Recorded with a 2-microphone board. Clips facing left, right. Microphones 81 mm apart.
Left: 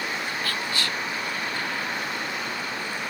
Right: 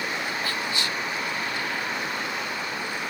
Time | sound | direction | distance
0.4 | whispering | 20° right (ahead or behind) | ?